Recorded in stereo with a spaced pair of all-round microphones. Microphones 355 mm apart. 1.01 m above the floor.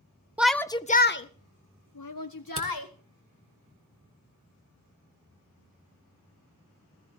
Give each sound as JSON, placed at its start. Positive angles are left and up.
{"t": 0.4, "sound": "a shout", "side_deg": -5, "distance_m": 0.6}
{"t": 2.6, "sound": "a camera shutter", "side_deg": -40, "distance_m": 2.5}